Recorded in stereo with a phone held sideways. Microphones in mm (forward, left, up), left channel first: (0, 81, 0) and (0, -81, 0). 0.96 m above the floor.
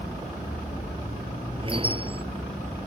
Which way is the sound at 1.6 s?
35° right (ahead or behind).